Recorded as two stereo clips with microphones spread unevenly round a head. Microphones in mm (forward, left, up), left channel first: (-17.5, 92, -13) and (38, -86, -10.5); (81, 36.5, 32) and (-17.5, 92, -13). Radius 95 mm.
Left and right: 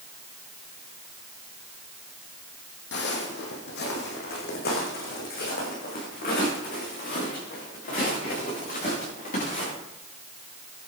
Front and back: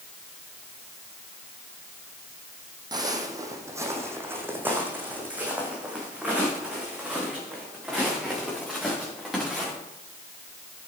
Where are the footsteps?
90° left, 3 m; by 9.7 s 60° left, 9 m.